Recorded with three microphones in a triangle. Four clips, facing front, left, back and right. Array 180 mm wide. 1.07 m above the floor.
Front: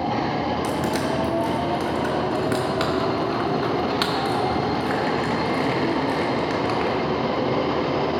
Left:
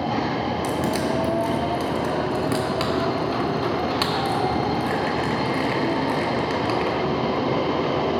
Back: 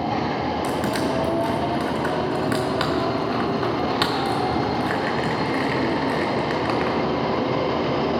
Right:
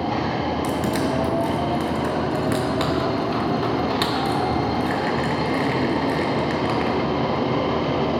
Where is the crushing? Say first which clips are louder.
Even, even; 175° left, 1.8 m.